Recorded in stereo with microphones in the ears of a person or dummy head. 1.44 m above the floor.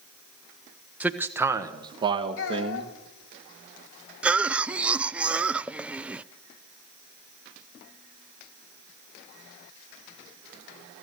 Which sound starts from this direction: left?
A child speaking, at 2.4 s.